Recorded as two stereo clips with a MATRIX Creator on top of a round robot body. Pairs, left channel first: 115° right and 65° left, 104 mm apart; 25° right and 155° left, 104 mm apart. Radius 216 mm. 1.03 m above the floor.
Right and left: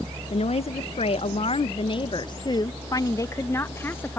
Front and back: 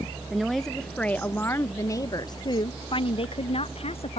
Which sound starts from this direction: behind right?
A woman speaking, at 0.3 s.